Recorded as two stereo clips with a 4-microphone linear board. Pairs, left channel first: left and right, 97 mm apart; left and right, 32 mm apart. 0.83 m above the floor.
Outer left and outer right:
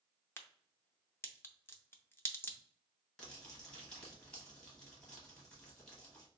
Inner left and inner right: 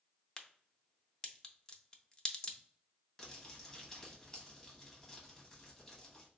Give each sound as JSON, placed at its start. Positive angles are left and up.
{"t": 0.4, "sound": "a crack", "side_deg": 25, "distance_m": 0.5}
{"t": 3.2, "sound": "crumpling", "side_deg": 10, "distance_m": 1.2}